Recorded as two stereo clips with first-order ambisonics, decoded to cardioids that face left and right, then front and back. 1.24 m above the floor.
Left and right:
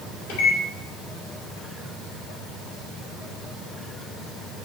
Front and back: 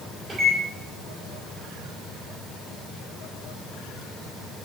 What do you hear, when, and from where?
0.3 s a microwave: 110° left, 2.5 m